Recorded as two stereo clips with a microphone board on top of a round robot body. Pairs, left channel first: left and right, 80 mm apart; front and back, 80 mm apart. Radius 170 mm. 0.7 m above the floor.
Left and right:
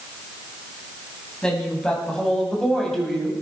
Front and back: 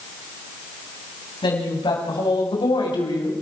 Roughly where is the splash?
No splash in this recording.